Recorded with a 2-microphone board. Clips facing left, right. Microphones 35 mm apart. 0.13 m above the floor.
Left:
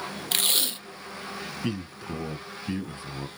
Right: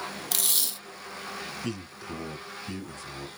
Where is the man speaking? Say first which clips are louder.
Left 3 dB; 25° left (ahead or behind), 1.8 m.